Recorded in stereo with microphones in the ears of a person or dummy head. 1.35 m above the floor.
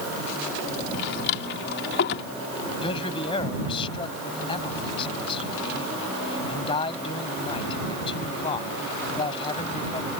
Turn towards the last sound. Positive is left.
turn(degrees=35)  # may be behind; listen again after turning